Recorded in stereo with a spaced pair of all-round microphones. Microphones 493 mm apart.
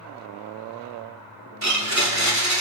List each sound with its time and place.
1.6 s a blender: 35° right (ahead or behind), 1.6 m